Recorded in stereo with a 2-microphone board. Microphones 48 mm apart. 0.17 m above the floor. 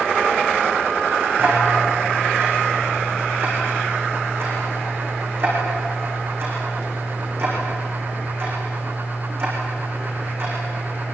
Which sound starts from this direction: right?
Ticking, at 1.4 s.